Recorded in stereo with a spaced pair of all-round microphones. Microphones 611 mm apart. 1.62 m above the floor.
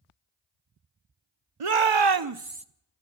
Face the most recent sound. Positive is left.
turn(degrees=-10)  # may be behind; listen again after turning